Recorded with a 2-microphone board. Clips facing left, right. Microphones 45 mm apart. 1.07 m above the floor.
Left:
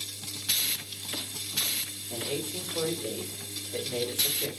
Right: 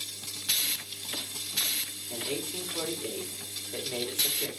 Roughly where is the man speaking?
Right.